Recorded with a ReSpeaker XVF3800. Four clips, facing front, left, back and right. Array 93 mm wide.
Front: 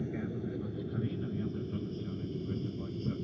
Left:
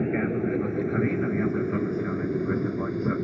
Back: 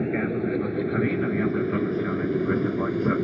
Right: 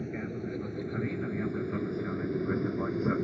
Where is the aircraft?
140° left; by 3.2 s straight behind.